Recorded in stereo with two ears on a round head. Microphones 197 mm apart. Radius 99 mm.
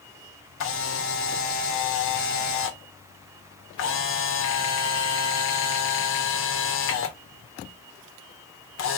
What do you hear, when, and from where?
0.6 s a camera shutter: 65° left (ahead or behind), 1.2 m